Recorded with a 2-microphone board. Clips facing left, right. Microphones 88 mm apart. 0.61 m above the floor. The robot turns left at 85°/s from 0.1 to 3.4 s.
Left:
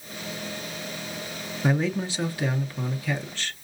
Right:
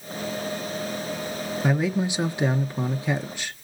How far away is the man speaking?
About 0.6 m.